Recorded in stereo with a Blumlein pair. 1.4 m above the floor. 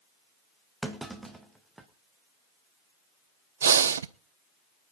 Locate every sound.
0.8 s a clunk: 5° right, 1.5 m
3.6 s breathing: 65° right, 0.5 m